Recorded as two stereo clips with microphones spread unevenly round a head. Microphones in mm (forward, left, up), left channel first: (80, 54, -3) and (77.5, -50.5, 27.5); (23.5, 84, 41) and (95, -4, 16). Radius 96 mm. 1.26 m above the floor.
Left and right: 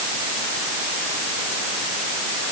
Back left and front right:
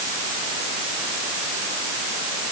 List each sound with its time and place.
Only background noise.